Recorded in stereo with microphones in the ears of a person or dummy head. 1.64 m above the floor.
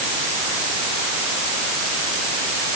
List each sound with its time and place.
Only background noise.